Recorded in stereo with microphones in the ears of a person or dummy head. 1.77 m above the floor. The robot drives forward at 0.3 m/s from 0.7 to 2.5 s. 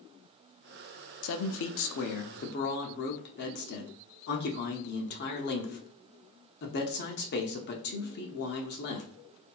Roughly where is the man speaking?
Left.